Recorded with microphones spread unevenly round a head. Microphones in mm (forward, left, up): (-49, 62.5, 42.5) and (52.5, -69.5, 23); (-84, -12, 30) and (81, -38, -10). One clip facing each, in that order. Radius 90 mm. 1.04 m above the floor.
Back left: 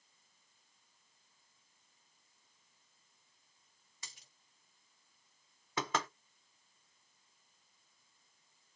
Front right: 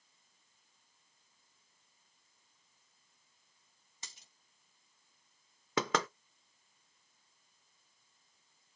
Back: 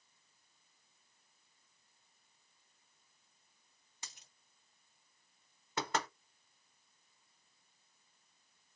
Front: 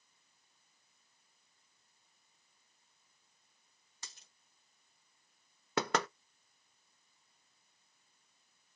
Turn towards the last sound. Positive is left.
turn(degrees=-30)